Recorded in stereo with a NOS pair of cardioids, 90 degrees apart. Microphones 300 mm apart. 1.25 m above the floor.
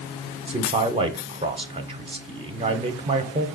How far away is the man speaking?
About 0.6 m.